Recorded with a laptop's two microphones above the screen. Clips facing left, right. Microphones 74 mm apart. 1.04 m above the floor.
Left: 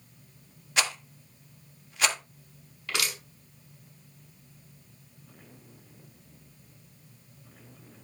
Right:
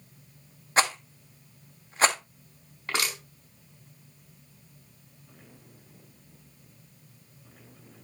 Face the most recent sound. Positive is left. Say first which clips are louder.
# right 2 dB
turn(degrees=-40)  # may be behind; listen again after turning